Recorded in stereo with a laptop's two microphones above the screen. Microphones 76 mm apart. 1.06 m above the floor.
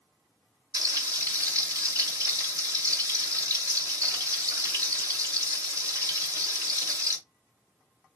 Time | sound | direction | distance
0.7 | frying | 55° right (ahead or behind) | 2.5 m